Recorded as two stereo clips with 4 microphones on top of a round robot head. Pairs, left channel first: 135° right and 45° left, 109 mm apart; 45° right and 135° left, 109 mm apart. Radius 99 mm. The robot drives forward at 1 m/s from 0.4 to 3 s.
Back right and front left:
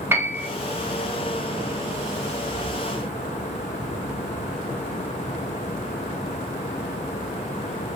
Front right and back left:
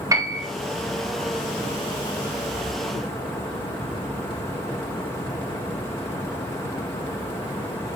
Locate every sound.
0.1 s a piano: 100° left, 1.6 m; by 0.5 s 105° left, 1.6 m